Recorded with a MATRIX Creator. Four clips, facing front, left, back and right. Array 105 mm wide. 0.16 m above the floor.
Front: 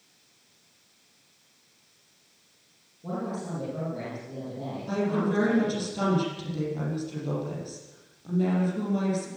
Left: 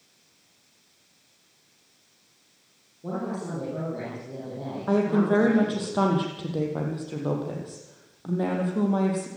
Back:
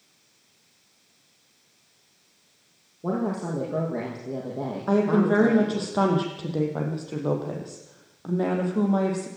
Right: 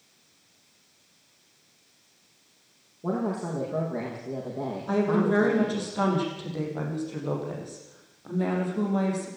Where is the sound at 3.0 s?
155° right, 6 m.